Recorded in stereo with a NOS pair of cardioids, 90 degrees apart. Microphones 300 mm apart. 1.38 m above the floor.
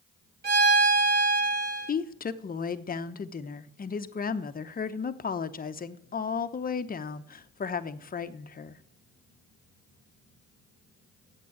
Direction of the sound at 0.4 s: 30° right.